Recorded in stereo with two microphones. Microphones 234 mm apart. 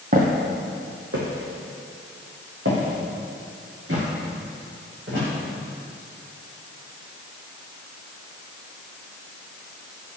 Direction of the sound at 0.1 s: 40° right (ahead or behind).